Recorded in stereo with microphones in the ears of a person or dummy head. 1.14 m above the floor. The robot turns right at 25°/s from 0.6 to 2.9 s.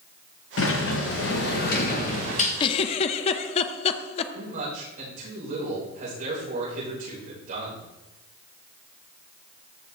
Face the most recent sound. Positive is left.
turn(degrees=-45)  # may be behind; listen again after turning